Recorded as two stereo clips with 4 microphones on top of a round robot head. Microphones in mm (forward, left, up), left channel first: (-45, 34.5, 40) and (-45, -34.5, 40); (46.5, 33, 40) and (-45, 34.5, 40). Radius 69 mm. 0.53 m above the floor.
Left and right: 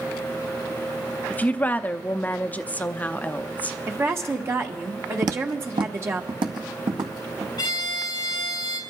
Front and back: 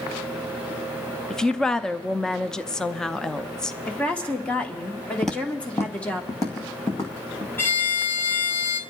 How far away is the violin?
About 1.9 m.